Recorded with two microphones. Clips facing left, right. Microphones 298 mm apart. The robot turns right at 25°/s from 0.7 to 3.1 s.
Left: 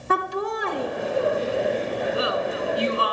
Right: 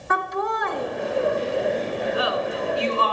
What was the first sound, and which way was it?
Laughter, 35° left (ahead or behind).